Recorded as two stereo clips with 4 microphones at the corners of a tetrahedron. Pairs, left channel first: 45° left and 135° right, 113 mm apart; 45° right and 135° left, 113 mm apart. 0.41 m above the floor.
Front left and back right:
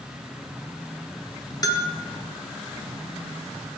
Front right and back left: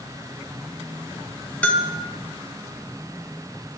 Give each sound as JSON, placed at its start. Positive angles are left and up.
{"t": 1.6, "sound": "a bell", "azimuth_deg": 25, "distance_m": 0.7}